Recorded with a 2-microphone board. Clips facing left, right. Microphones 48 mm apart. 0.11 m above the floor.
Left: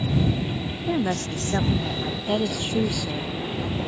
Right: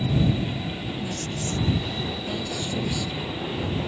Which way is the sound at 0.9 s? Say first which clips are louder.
Left 6 dB; 55° left (ahead or behind).